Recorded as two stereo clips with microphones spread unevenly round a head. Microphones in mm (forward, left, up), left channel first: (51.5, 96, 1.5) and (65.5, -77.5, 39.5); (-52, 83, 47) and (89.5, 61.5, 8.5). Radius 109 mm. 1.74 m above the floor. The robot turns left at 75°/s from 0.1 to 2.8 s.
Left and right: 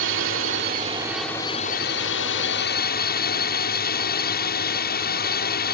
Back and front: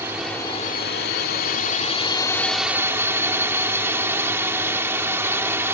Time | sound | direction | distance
0.0 | a drone | 90° right | ?